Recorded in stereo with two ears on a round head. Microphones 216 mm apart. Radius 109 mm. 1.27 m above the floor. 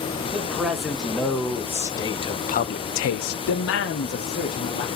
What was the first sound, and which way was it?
A man speaking, centre (ahead or behind).